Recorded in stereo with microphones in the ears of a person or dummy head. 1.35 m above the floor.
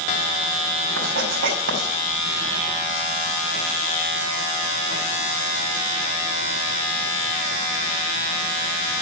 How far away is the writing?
About 5 m.